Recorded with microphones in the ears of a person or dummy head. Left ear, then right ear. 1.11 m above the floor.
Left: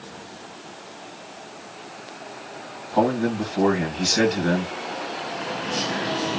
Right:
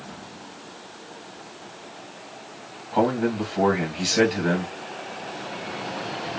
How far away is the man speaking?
About 1.6 m.